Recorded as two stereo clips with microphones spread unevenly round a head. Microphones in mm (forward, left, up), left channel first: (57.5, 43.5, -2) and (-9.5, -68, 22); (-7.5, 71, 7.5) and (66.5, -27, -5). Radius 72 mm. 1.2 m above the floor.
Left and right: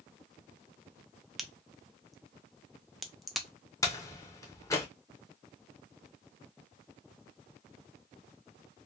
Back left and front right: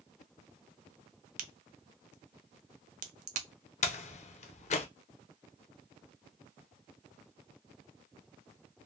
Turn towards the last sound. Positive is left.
turn(degrees=135)